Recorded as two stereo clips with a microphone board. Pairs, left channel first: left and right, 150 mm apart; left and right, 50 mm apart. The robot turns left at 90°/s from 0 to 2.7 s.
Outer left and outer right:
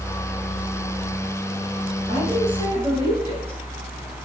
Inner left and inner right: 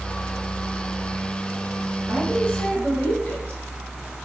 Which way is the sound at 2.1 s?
145° left.